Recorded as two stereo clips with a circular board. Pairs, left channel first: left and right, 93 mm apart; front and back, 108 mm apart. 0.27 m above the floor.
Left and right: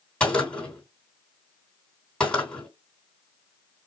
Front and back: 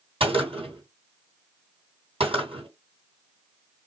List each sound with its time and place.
0.2 s a gunshot: 170° left, 3 m